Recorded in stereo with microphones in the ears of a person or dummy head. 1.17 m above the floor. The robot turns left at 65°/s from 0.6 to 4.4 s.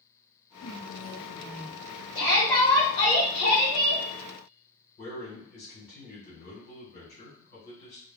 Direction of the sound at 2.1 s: 160° right.